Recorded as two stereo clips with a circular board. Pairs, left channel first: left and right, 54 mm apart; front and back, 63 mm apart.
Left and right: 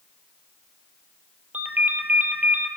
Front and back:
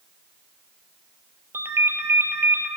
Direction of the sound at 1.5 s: 140° right.